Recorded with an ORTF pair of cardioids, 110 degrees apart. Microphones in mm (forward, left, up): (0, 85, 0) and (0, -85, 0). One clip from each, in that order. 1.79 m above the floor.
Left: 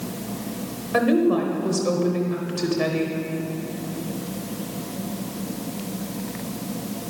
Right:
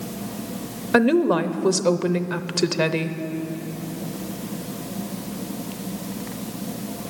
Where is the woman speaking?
65° right, 0.8 m.